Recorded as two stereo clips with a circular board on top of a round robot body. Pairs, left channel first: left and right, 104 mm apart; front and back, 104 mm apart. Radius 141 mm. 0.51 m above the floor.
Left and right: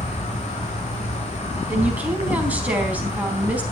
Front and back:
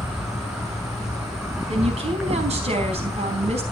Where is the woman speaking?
165° right, 4.5 m.